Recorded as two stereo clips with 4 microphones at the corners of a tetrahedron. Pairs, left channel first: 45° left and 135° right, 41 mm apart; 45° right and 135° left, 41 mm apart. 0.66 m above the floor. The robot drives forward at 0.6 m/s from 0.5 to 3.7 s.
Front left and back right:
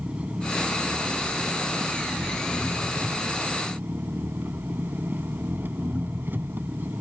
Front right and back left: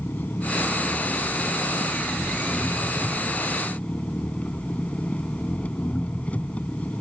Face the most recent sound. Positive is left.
turn(degrees=-100)